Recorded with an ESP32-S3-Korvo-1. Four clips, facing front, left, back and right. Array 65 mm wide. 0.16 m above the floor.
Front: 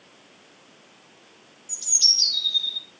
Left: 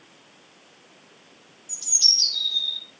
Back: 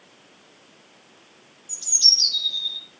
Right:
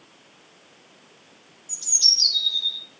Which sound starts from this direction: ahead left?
A bird, at 1.7 s.